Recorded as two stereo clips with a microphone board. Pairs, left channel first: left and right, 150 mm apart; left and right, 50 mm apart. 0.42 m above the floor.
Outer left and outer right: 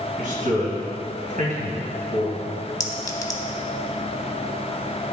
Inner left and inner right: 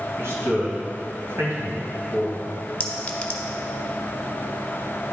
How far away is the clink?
About 0.7 m.